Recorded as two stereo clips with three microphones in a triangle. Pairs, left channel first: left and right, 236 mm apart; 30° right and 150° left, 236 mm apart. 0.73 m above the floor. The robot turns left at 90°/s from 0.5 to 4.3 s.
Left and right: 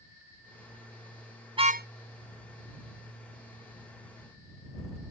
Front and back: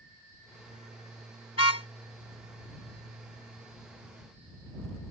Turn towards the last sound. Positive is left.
turn(degrees=95)